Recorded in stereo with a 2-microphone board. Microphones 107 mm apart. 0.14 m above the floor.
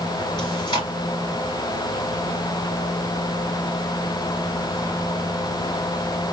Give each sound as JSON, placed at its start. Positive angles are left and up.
{"t": 0.4, "sound": "chewing", "side_deg": 40, "distance_m": 2.0}